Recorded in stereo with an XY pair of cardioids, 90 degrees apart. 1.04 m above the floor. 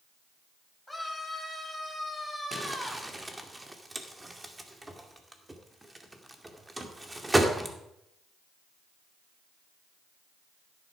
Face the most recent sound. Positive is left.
turn(degrees=-15)